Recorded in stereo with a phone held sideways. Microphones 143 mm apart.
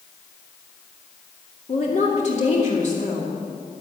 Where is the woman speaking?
55° left (ahead or behind), 2 m.